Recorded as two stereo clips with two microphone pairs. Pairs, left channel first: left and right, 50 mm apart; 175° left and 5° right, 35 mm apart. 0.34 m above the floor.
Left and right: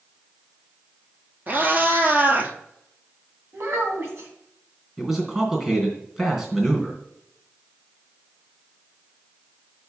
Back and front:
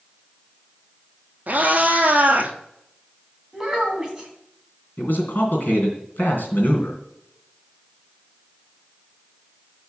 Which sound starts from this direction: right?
A child speaking, at 3.5 s.